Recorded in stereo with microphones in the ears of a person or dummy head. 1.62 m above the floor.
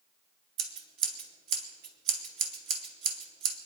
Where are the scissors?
60° right (ahead or behind), 2.5 m.